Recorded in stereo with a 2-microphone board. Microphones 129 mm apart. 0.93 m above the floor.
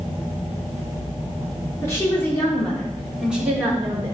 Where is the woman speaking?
25° left (ahead or behind), 3 m; by 4.1 s 25° right (ahead or behind), 3 m.